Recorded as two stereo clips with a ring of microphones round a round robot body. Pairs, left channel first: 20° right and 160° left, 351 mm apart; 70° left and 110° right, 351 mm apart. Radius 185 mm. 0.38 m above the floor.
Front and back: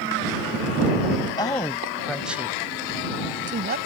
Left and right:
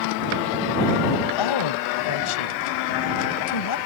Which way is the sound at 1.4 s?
55° left.